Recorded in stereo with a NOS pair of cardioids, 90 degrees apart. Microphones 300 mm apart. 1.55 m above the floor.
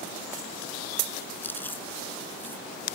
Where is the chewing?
5° left.